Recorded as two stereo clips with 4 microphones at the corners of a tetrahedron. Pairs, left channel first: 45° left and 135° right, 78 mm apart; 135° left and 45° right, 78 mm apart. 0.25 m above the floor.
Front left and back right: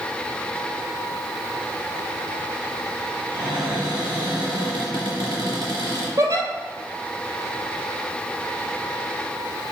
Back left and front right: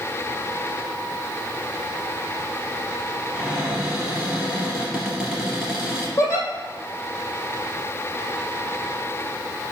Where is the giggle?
170° right, 1.9 m.